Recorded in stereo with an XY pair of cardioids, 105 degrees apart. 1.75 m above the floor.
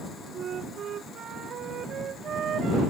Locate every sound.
0.3 s a flute: 55° right